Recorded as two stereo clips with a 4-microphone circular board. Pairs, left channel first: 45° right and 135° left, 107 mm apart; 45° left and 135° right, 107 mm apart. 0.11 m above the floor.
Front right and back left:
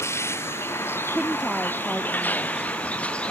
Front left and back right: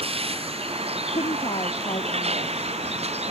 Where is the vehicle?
110° right; by 3.3 s 125° right.